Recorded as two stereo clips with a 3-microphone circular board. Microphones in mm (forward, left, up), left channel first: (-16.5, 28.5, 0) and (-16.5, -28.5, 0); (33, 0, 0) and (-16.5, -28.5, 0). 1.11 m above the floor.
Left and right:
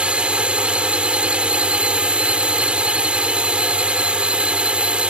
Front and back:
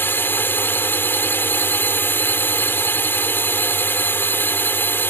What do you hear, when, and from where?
0.0 s a drone: 20° right